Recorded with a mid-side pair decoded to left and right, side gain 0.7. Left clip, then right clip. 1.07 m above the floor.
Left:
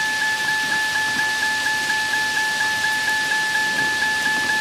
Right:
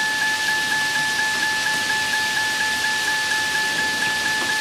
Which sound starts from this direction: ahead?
A vehicle, at 0.0 s.